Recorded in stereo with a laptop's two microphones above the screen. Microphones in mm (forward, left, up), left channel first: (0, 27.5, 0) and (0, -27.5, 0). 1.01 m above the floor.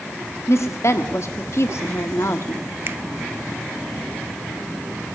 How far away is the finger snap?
About 0.8 m.